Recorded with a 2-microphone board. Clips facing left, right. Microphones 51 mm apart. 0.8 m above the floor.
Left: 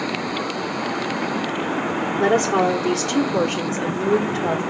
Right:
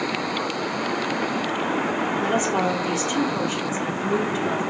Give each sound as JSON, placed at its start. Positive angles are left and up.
{"t": 2.2, "sound": "a woman speaking", "side_deg": 70, "distance_m": 2.5}